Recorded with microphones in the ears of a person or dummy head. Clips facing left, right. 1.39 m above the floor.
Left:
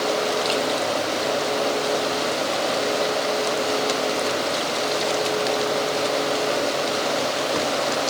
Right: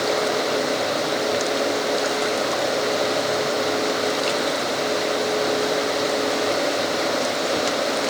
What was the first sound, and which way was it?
Only background noise.